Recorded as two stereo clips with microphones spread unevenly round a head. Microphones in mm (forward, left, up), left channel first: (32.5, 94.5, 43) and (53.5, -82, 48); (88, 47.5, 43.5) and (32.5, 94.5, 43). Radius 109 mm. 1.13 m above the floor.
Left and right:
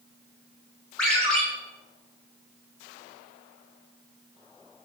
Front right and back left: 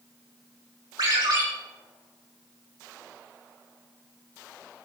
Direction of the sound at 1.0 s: Straight behind.